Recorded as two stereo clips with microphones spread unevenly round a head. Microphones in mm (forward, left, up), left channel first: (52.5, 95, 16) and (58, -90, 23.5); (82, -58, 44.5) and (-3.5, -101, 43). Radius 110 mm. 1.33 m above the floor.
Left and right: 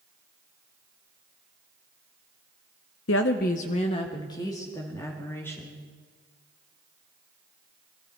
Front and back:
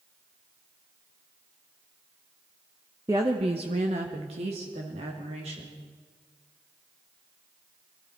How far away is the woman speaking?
About 0.6 m.